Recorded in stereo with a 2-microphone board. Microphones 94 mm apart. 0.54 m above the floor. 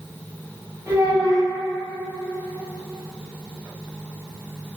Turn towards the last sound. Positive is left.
turn(degrees=-30)  # may be behind; listen again after turning